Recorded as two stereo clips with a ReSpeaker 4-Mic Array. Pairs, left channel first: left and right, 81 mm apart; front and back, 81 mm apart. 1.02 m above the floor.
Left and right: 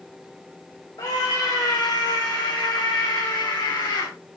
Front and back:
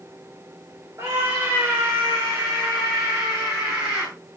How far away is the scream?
About 2 m.